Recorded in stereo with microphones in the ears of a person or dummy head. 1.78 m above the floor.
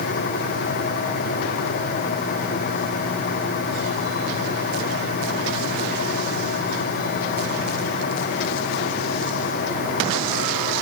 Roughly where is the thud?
No thud in this recording.